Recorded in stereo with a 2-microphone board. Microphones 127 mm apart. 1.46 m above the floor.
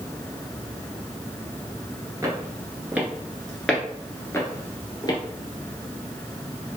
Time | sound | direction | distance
2.2 | footsteps | 25° right (ahead or behind) | 1.6 m